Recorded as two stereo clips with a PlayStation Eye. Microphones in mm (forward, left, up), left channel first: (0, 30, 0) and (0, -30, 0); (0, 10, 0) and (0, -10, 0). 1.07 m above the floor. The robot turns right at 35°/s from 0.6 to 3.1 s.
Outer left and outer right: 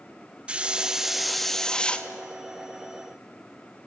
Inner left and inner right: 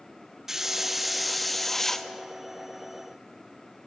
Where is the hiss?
20° right, 0.5 m; by 2.1 s 30° left, 0.5 m.